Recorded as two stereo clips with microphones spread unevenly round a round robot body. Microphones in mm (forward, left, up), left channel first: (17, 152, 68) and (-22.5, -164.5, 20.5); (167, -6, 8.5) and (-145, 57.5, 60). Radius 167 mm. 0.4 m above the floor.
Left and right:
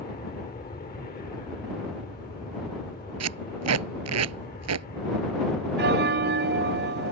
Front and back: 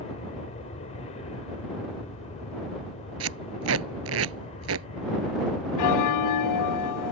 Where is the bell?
40° right.